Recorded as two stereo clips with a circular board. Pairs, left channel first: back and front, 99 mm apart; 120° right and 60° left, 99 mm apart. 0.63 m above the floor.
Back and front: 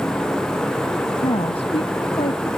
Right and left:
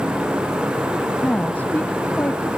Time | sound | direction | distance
1.2 | a woman speaking | 165° left | ?